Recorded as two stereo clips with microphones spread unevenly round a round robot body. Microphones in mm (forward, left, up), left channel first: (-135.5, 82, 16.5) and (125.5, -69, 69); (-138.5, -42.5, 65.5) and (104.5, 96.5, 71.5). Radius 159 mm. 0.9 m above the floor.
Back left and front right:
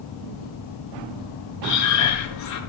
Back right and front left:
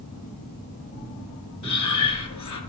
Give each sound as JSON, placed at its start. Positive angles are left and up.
{"t": 1.6, "sound": "breathing", "azimuth_deg": -175, "distance_m": 4.5}